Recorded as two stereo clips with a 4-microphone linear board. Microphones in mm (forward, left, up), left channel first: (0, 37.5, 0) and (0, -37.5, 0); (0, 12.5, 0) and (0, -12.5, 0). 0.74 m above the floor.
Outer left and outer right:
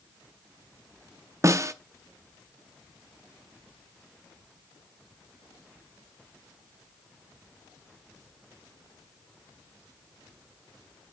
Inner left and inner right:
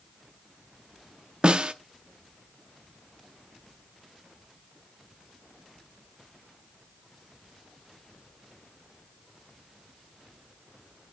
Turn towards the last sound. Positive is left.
turn(degrees=-45)  # may be behind; listen again after turning